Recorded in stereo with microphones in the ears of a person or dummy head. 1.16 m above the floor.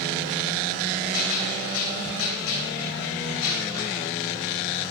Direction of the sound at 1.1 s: 80° left.